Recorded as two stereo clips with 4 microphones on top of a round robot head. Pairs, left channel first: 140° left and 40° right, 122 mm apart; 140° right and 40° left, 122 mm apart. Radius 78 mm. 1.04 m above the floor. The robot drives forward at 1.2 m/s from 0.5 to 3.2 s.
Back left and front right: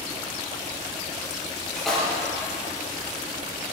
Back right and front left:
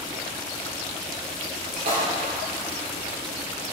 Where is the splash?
55° left, 5 m.